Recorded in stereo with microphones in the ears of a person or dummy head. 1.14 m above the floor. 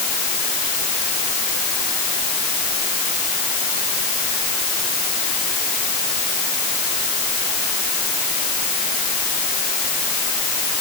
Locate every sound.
Only background noise.